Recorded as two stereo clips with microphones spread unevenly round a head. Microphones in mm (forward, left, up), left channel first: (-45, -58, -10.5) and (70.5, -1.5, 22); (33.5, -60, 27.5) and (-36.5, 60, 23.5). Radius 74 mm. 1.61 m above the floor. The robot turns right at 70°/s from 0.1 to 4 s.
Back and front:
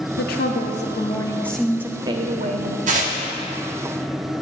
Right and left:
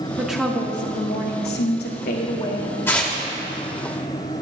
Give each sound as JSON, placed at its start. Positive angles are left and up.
{"t": 0.2, "sound": "a woman speaking", "azimuth_deg": -160, "distance_m": 0.9}
{"t": 2.9, "sound": "tearing paper", "azimuth_deg": 10, "distance_m": 1.1}